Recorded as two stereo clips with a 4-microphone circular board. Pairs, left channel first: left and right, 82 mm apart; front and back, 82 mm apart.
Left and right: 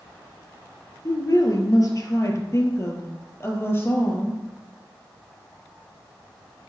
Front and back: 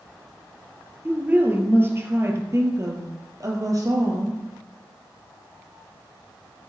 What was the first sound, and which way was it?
A woman speaking, 115° left.